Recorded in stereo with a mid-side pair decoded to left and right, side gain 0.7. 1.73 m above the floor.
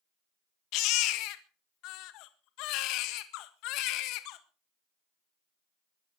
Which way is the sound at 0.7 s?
65° left.